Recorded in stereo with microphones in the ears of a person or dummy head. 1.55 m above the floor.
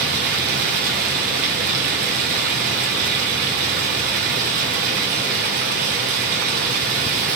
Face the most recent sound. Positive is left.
turn(degrees=-40)  # may be behind; listen again after turning